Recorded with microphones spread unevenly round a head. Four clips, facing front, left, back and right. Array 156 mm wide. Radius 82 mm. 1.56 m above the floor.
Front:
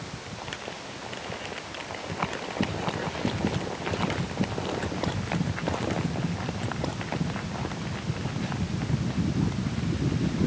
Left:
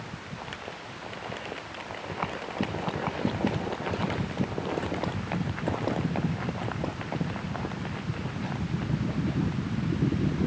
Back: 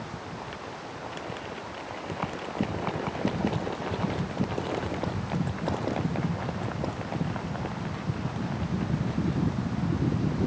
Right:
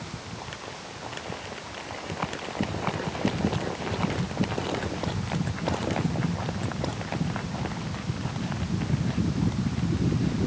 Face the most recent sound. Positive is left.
No sound to turn to.